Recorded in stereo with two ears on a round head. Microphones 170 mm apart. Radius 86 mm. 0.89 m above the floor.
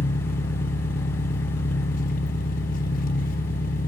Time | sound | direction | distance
0.0 | an engine running | 45° left (ahead or behind) | 0.9 m